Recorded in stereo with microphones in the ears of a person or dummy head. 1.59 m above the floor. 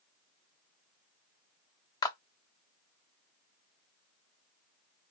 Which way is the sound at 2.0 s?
25° left (ahead or behind).